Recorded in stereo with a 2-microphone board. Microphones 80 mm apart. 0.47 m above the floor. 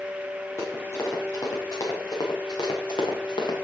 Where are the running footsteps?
35° left (ahead or behind), 5.5 m; by 3.5 s 70° left (ahead or behind), 3.5 m.